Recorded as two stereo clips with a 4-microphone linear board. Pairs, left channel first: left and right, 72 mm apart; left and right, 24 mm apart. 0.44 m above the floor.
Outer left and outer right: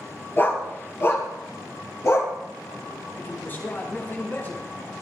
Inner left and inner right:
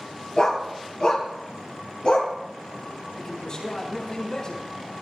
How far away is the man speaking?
About 4.5 m.